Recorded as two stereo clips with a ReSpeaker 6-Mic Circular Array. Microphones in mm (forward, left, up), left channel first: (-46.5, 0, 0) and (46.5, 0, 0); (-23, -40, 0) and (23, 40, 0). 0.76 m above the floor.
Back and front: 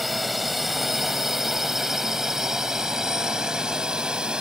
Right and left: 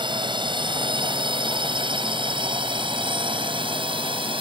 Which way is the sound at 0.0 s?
90° left.